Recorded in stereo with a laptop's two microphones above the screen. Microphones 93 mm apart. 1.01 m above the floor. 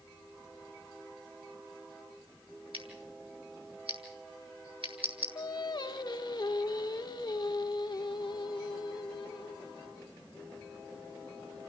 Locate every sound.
2.7 s scissors: 75° right (ahead or behind), 4 m
5.3 s singing: 50° left (ahead or behind), 1.0 m